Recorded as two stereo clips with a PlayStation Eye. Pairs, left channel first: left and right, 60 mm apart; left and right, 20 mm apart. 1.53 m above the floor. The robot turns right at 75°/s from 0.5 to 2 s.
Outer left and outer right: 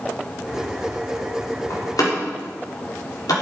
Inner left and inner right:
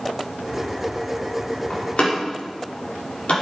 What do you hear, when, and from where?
1.7 s a door slam: 55° left (ahead or behind), 3.5 m; by 3.3 s 80° left, 3.5 m